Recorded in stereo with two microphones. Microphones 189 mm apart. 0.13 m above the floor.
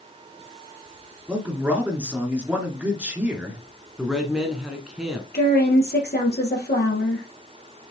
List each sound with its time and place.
1.3 s a man speaking: 5° right (ahead or behind), 2 m
4.0 s a man speaking: 5° right (ahead or behind), 1.2 m
5.3 s a woman speaking: 60° left (ahead or behind), 3 m